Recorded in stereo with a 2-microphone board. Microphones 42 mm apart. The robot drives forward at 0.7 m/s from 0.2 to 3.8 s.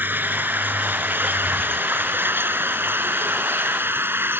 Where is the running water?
60° right (ahead or behind); by 4.4 s 80° right.